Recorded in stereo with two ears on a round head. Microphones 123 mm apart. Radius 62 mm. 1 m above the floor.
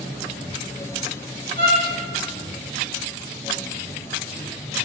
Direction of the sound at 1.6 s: 75° right (ahead or behind).